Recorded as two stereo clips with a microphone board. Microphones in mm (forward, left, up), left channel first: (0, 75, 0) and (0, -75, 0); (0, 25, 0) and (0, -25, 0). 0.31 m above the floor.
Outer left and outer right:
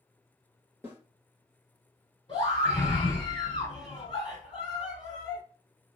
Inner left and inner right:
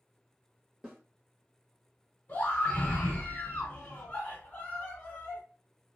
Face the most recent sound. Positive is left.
turn(degrees=35)  # may be behind; listen again after turning